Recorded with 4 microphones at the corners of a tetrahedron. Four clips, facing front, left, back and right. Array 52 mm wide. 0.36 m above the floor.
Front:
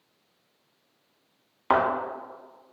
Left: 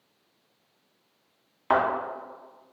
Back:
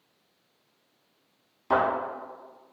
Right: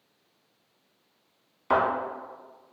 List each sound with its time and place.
1.7 s a thud: 25° left, 1.2 m